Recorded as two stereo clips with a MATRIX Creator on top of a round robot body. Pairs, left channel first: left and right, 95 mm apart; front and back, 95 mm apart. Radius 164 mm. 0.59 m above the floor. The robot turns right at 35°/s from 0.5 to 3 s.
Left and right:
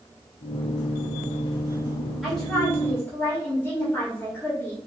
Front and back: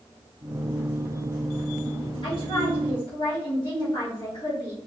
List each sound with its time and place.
2.2 s a woman speaking: straight ahead, 1.9 m; by 4.8 s 30° left, 1.9 m